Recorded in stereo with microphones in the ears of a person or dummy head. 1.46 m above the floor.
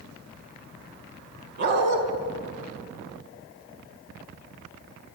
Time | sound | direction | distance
1.6 | a dog barking | 65° right (ahead or behind) | 3.5 m